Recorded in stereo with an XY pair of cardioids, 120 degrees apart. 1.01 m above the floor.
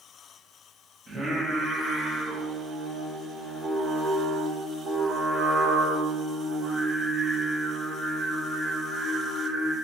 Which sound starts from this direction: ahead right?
Singing, at 1.1 s.